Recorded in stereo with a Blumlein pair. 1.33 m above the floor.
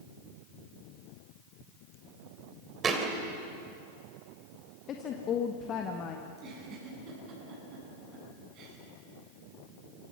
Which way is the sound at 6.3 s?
35° right.